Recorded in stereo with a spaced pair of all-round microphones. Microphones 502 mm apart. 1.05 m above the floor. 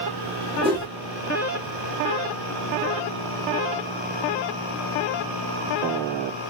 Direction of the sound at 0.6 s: 10° right (ahead or behind).